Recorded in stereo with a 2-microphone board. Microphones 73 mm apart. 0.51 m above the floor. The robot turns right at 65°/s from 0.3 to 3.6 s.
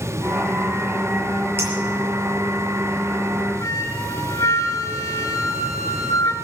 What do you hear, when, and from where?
1.6 s a clink: 35° right (ahead or behind), 6 m; by 1.7 s 40° right (ahead or behind), 6 m
3.6 s a flute: 40° left (ahead or behind), 4 m